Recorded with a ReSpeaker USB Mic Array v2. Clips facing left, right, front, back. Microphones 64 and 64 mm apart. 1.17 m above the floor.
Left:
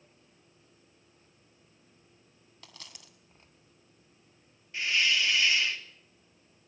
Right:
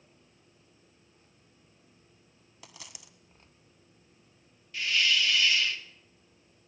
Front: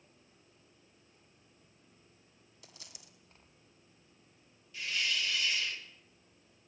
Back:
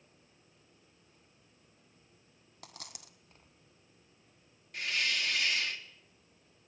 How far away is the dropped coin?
About 2 m.